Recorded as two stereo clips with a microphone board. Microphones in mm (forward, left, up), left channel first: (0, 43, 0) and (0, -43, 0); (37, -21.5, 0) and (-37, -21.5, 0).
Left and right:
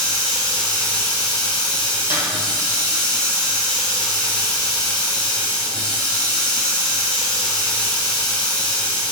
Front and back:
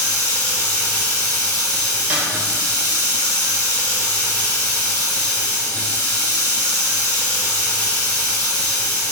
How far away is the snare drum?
About 1.6 m.